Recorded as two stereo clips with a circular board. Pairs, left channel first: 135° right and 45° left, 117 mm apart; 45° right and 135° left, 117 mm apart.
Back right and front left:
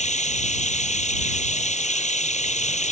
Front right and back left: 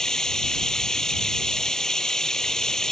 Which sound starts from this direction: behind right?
Running water, at 0.0 s.